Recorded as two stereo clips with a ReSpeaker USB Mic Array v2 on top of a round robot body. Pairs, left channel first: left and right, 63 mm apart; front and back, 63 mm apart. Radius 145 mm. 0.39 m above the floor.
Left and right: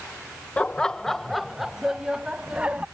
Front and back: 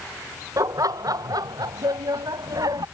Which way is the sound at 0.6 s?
160° left.